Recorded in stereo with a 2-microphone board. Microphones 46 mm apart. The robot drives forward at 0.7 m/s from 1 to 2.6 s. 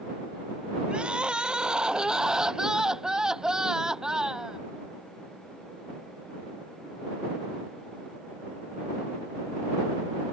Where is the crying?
25° right (ahead or behind); by 4.6 s 15° right (ahead or behind).